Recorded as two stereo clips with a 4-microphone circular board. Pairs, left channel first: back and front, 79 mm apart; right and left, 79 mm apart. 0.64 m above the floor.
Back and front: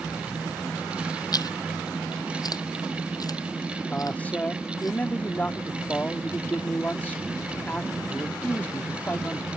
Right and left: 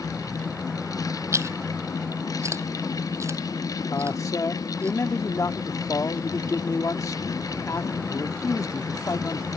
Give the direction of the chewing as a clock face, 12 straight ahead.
7 o'clock.